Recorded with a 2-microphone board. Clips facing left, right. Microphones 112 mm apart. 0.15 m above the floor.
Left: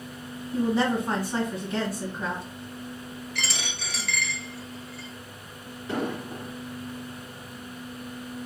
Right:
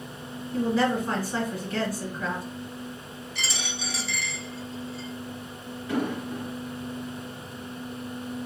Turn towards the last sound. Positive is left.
turn(degrees=35)  # may be behind; listen again after turning